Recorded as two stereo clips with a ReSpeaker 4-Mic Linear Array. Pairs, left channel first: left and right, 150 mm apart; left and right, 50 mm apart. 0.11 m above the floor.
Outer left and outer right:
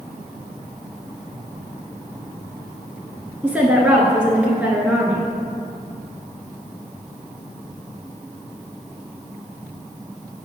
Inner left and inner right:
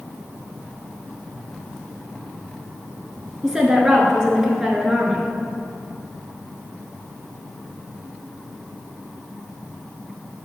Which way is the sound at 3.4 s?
10° right (ahead or behind).